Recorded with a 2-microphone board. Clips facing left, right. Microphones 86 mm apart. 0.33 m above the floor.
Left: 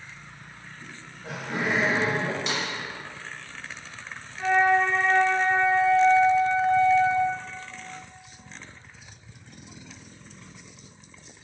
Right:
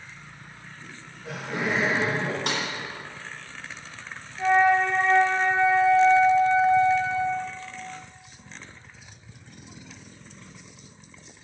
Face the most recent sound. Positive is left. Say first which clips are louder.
# right 1 dB
turn(degrees=65)  # may be behind; listen again after turning